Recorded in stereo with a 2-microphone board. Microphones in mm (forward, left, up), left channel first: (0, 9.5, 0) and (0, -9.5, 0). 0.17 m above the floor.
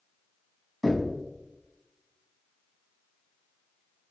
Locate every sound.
0.8 s knocking: 10° left (ahead or behind), 1.2 m